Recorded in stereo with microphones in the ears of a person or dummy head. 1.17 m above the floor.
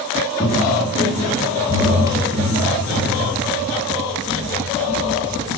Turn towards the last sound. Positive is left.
turn(degrees=-35)  # may be behind; listen again after turning